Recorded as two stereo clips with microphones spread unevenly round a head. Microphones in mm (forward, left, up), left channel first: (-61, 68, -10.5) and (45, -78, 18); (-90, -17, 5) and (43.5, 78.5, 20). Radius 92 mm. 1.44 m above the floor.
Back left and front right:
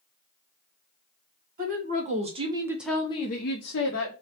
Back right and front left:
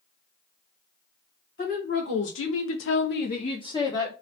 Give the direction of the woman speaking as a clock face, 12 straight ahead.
3 o'clock.